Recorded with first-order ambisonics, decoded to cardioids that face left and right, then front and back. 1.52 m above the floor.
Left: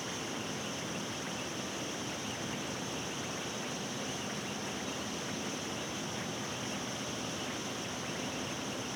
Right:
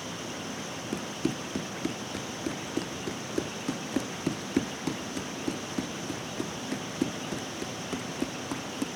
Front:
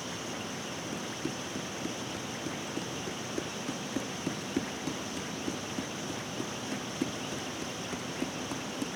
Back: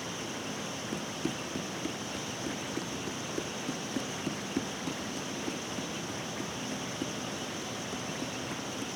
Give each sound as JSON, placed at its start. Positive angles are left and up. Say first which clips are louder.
{"t": 0.9, "sound": "running footsteps", "louder": "right 5 dB, back 1 dB", "azimuth_deg": -95}